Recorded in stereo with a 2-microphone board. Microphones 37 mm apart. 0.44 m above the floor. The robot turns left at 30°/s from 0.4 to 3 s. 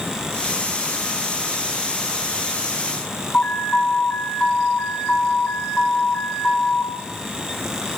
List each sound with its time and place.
3.3 s an alarm: 40° left (ahead or behind), 5.5 m